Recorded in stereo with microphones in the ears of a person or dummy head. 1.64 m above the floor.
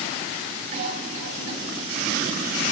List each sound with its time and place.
0.7 s a cough: 65° right (ahead or behind), 4.5 m